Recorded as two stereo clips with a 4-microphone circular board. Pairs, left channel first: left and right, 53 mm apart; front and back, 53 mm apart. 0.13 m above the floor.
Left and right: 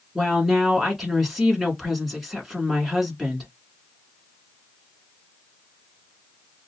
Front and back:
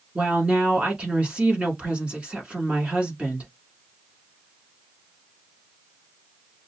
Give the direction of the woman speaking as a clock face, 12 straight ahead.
6 o'clock.